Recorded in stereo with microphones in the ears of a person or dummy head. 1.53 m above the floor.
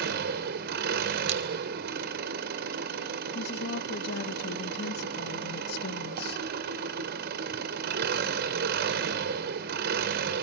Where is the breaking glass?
40° right (ahead or behind), 4 m.